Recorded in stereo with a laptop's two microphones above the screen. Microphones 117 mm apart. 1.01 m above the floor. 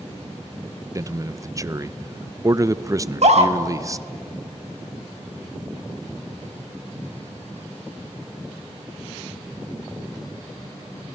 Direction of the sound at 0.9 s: 30° right (ahead or behind).